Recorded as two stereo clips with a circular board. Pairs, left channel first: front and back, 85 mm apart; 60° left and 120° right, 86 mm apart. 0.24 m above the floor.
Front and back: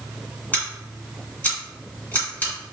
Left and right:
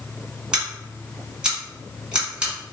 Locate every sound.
0.5 s scissors: 50° right, 1.9 m